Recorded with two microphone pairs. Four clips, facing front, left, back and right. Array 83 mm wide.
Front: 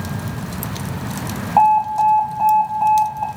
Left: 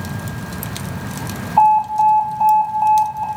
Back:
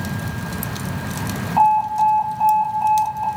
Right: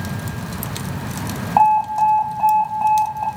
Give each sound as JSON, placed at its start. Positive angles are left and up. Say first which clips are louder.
{"t": 1.6, "sound": "an alarm", "louder": "left 2 dB, front 2 dB", "azimuth_deg": -55, "distance_m": 2.5}